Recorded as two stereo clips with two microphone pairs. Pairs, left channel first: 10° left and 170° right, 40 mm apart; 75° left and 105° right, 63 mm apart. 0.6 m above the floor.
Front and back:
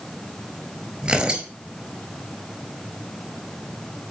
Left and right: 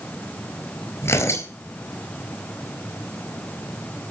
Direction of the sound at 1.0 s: 120° left.